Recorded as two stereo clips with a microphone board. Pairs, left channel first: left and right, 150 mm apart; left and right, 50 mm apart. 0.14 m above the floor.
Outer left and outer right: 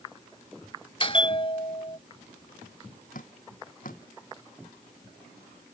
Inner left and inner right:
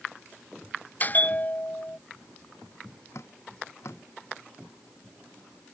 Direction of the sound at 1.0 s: 35° left (ahead or behind).